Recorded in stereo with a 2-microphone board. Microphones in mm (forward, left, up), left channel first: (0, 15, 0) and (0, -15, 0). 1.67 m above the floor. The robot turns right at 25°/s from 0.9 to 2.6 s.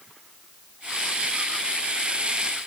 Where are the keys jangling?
No keys jangling in this recording.